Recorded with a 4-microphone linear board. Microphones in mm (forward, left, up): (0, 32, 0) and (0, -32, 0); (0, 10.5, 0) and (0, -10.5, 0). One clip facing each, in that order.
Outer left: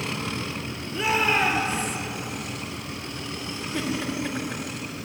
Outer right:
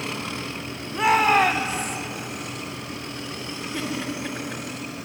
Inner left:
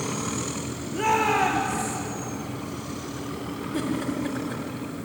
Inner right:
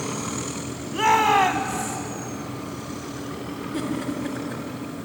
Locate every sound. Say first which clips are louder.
0.9 s a shout: outer right 5 dB, inner right 4 dB; 65° right (ahead or behind), 2.5 m
3.7 s a giggle: outer left 2 dB, even; 5° right (ahead or behind), 3.5 m